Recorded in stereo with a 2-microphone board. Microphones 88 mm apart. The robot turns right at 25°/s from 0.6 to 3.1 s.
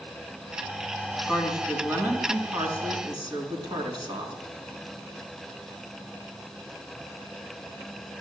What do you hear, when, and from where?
1.3 s a woman speaking: 170° right, 4 m; by 4.3 s 125° right, 4 m